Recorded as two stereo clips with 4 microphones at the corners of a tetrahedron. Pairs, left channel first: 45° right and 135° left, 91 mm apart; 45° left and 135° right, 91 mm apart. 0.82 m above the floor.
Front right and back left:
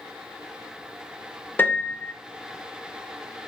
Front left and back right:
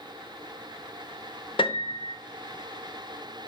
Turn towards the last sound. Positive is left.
turn(degrees=25)